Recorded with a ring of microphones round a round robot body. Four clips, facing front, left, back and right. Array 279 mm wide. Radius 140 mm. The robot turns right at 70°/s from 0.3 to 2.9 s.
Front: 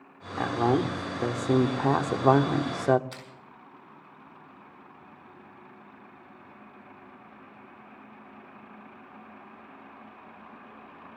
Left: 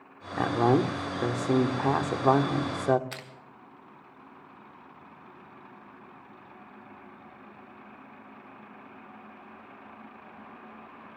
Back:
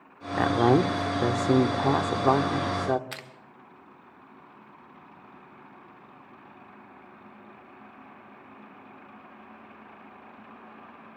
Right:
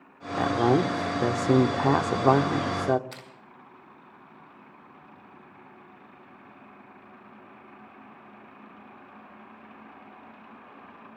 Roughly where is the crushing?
Behind left.